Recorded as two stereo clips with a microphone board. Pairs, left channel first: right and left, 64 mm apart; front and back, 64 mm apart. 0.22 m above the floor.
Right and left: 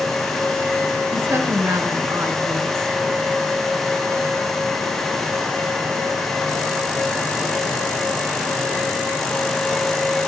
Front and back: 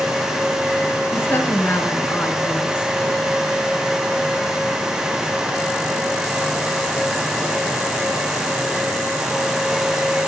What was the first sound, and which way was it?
A woman speaking, 50° left.